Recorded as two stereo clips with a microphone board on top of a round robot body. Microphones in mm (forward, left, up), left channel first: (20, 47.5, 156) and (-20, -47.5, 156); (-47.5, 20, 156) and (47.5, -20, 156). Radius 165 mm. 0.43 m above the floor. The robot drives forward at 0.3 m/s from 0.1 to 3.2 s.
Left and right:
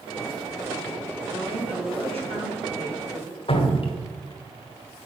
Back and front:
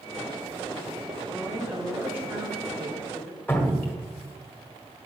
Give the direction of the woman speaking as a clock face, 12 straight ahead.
3 o'clock.